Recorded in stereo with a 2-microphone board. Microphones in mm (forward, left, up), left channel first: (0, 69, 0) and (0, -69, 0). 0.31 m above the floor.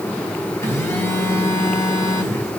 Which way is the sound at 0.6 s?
20° left (ahead or behind).